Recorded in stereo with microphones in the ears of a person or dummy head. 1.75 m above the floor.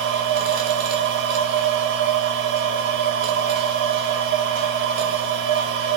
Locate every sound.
0.0 s a machine running: 65° right (ahead or behind), 0.8 m